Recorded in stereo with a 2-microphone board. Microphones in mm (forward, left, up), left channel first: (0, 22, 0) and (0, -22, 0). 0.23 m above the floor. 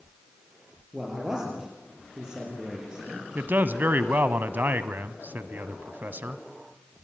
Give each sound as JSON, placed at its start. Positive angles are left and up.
{"t": 0.9, "sound": "a man speaking", "side_deg": -15, "distance_m": 6.0}
{"t": 3.4, "sound": "a man speaking", "side_deg": -45, "distance_m": 1.3}